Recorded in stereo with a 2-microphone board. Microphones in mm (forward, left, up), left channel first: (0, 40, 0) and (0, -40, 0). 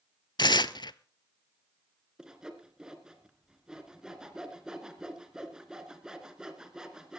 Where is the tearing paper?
65° left (ahead or behind), 0.6 m.